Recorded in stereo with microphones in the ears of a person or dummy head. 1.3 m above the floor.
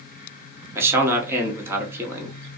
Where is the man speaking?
15° right (ahead or behind), 0.6 m.